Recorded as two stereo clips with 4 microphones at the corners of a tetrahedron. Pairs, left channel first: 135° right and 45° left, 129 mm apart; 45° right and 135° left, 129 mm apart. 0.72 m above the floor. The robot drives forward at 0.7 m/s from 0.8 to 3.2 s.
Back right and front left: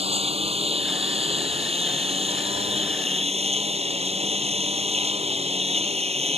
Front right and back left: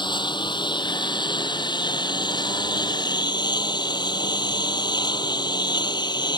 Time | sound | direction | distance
0.0 | a lawn mower | 10° left | ?